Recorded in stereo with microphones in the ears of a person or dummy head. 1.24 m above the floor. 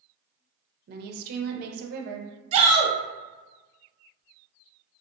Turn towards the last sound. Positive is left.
turn(degrees=-35)  # may be behind; listen again after turning